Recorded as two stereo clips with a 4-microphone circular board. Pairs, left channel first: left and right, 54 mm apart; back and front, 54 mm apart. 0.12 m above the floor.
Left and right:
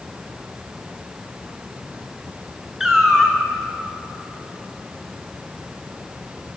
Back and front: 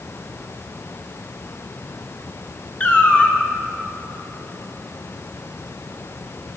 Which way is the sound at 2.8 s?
165° right.